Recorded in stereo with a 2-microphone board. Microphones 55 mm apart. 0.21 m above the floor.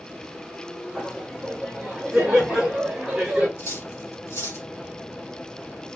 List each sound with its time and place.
0.9 s laughter: 10° right (ahead or behind), 1.8 m; by 3.5 s 20° right (ahead or behind), 1.5 m
3.6 s cutlery clinking: 60° left (ahead or behind), 1.3 m